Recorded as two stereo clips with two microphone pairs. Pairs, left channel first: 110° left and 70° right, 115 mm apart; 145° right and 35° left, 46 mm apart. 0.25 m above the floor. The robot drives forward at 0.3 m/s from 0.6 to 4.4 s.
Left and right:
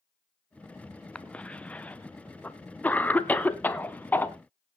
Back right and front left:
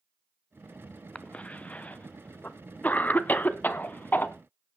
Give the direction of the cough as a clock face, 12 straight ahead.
6 o'clock.